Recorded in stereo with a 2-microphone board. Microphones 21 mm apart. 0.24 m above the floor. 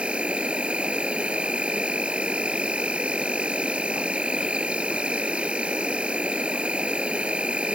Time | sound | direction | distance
0.0 | an insect | 85° right | ?